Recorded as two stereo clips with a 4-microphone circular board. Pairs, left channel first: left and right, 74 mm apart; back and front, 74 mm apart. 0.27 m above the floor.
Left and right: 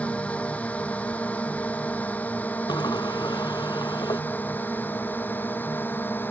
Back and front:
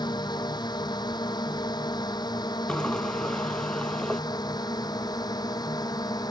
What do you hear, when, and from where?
0.0 s a drone: 165° left; by 6.3 s 155° left
2.7 s a sliding door: 100° left